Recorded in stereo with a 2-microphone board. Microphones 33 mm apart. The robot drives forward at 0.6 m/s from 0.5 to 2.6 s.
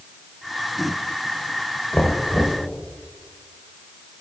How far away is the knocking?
About 1.4 m.